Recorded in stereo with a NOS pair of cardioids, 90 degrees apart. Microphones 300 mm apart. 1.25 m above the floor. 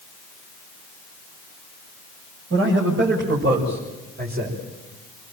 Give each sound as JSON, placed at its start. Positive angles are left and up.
{"t": 2.5, "sound": "a man speaking", "azimuth_deg": -50, "distance_m": 7.0}